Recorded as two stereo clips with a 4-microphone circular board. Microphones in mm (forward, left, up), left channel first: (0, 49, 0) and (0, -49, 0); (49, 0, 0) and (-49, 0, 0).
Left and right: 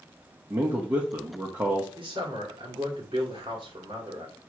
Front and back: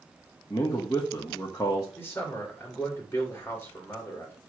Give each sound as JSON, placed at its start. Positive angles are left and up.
{"t": 0.5, "sound": "a man speaking", "azimuth_deg": -45, "distance_m": 1.4}
{"t": 2.0, "sound": "a man speaking", "azimuth_deg": -65, "distance_m": 2.5}